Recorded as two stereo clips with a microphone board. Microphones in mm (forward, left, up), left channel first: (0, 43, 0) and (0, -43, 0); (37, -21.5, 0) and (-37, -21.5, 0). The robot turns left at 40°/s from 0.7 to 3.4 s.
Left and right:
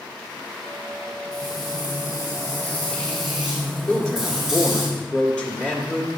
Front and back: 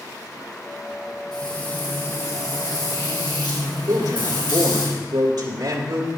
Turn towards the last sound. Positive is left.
turn(degrees=165)